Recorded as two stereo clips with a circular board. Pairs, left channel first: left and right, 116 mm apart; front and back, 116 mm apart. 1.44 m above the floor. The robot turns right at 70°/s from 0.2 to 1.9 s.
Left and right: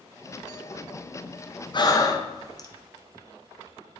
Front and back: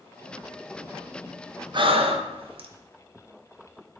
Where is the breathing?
135° left, 0.6 m; by 2.7 s 145° left, 0.6 m.